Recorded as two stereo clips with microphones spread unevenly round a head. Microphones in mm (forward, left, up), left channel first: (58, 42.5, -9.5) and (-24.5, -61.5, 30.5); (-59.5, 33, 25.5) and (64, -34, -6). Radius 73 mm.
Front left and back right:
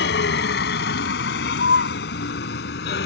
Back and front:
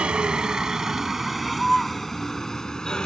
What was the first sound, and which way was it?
A vehicle, 55° left.